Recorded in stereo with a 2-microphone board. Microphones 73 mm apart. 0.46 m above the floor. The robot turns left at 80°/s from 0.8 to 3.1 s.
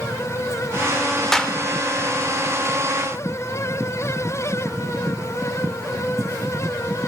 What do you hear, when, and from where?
1.3 s a clap: 5° left (ahead or behind), 1.4 m; by 1.5 s 20° left (ahead or behind), 1.4 m